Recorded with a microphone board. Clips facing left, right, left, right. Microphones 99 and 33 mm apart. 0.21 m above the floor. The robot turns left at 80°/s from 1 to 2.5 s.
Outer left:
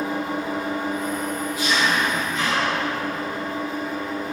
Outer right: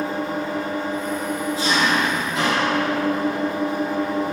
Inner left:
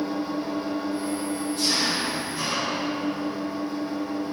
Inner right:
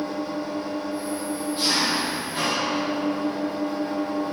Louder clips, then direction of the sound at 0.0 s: Outer right 1 dB, inner left 1 dB; 15° left.